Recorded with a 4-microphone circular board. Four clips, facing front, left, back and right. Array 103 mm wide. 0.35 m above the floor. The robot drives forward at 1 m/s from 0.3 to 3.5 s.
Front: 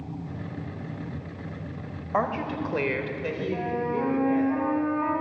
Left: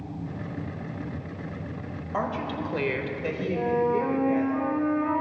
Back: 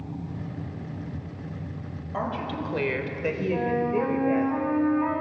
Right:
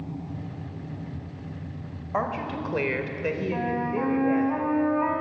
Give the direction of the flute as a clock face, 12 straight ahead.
3 o'clock.